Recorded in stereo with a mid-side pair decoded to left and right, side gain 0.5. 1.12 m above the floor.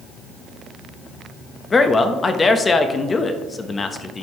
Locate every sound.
1.7 s a man speaking: 30° left, 1.2 m